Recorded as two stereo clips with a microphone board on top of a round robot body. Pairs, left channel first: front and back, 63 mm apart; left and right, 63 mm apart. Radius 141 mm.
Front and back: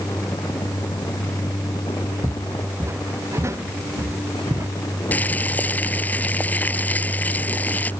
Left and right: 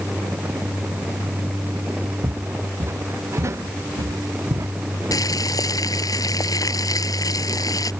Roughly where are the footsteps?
Behind right.